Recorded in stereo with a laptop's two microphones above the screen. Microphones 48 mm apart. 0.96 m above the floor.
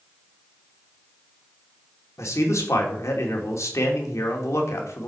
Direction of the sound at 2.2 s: 80° left.